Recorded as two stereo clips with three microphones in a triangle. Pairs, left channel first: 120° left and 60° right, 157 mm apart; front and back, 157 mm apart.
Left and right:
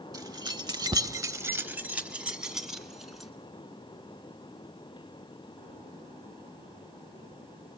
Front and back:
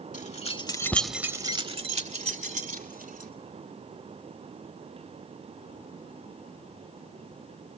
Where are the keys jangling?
Straight ahead, 1.0 m; by 3.3 s 150° right, 2 m.